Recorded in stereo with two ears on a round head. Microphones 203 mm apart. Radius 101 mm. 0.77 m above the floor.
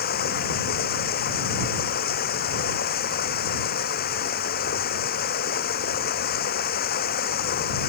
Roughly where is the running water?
Left.